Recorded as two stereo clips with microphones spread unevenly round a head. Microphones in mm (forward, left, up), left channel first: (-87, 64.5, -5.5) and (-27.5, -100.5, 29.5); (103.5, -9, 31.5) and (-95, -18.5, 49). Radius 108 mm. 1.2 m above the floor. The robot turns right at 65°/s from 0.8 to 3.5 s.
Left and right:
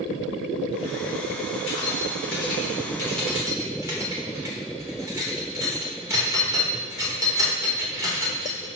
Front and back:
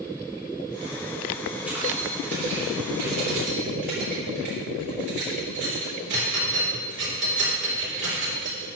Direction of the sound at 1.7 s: 100° left.